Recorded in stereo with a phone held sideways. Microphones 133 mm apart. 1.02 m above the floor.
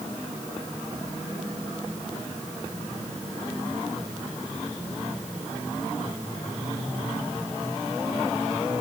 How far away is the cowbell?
No cowbell in this recording.